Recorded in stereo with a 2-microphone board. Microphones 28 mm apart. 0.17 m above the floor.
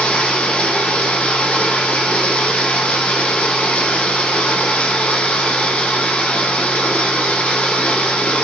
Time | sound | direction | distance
0.0 | running water | 65° left (ahead or behind) | 0.8 m